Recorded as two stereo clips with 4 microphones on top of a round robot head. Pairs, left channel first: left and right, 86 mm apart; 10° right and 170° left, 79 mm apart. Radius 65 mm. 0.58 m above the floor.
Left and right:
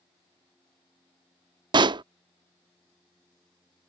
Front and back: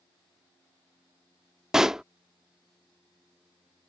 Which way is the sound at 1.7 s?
105° right.